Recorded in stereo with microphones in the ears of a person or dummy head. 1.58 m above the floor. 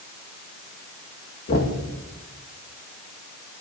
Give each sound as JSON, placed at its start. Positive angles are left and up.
{"t": 1.5, "sound": "knocking", "side_deg": 50, "distance_m": 1.8}